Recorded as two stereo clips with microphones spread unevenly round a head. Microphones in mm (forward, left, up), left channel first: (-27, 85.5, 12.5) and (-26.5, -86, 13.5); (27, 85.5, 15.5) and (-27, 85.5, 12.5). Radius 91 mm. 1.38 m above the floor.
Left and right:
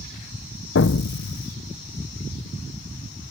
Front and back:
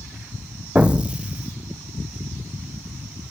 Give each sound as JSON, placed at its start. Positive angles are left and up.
{"t": 0.8, "sound": "an explosion", "azimuth_deg": 110}